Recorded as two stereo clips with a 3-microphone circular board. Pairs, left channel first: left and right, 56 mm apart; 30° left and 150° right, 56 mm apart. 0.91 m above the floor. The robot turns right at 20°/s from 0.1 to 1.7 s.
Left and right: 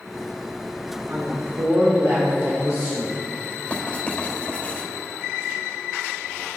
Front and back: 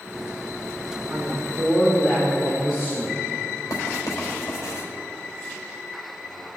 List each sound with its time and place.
1.1 s a woman speaking: 85° right, 3.5 m; by 3.2 s 75° right, 3.5 m
3.7 s writing: 25° left, 4.5 m